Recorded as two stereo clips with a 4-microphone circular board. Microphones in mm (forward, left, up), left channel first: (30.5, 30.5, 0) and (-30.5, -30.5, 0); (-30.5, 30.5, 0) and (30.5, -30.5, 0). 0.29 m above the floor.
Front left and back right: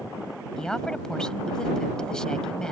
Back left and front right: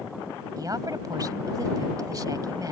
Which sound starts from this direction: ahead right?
A woman speaking, at 0.6 s.